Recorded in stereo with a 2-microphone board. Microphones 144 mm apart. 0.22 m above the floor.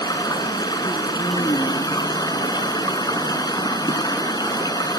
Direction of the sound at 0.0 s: 30° left (ahead or behind).